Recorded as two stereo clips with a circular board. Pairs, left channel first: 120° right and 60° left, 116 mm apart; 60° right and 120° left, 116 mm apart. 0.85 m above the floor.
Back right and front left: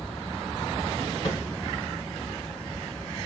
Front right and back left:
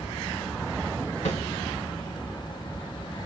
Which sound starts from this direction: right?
A snare drum, at 1.2 s.